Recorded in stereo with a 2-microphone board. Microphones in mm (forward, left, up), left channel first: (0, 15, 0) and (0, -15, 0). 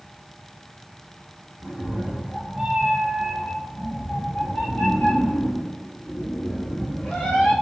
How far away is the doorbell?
No doorbell in this recording.